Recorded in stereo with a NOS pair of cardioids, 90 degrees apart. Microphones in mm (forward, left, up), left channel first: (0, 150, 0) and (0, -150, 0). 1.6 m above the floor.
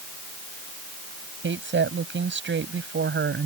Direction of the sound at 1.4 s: 40° right.